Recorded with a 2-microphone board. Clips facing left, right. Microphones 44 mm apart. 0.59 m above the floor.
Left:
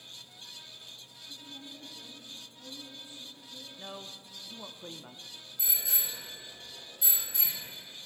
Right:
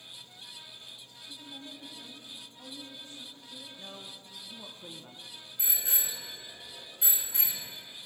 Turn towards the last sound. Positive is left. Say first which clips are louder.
# right 1 dB
turn(degrees=-40)  # may be behind; listen again after turning